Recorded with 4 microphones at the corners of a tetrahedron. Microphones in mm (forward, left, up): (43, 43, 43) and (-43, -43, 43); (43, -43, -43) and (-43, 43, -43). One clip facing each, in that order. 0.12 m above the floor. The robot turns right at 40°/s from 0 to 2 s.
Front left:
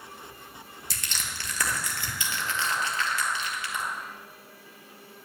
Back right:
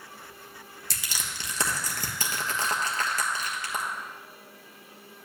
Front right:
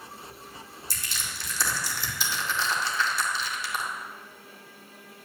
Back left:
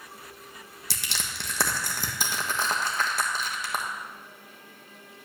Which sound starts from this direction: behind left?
Crushing, at 0.9 s.